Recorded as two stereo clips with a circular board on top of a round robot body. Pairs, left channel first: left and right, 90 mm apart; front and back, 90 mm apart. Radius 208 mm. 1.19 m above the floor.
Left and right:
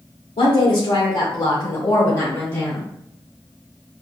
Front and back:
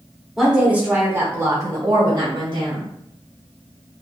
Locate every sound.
0.4 s a woman speaking: 95° left, 2.5 m; by 2.9 s 155° left, 3.5 m